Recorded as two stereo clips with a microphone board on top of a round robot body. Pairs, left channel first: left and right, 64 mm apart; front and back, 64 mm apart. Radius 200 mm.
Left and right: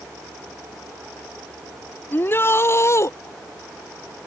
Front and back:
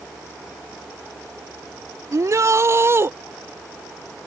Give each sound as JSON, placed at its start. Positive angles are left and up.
{"t": 2.1, "sound": "a shout", "azimuth_deg": 145}